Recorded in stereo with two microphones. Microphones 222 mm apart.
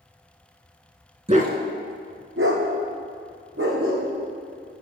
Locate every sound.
1.3 s a dog barking: 30° right (ahead or behind), 0.5 m; by 4.1 s 80° right, 1.7 m